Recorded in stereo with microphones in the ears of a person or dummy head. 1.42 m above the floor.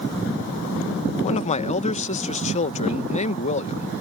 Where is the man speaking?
40° left (ahead or behind).